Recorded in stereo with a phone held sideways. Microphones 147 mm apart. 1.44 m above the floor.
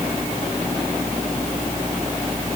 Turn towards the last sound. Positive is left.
No sound to turn to.